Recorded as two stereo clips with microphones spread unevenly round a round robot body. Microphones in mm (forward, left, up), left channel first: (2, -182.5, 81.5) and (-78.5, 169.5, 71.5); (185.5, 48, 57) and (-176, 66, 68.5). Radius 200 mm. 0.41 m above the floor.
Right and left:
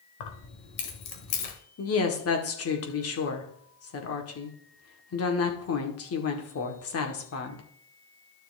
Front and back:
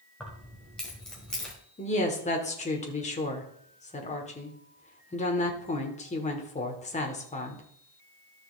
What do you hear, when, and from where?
0.2 s keys jangling: 90° right, 1.6 m
1.8 s a woman speaking: 60° right, 1.6 m